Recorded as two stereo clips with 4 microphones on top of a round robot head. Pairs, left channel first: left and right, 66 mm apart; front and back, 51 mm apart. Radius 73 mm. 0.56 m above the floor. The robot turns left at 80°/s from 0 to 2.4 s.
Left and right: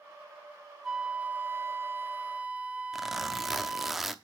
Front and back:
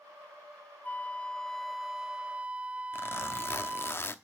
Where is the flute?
15° right, 0.9 m; by 3.9 s 140° right, 0.9 m.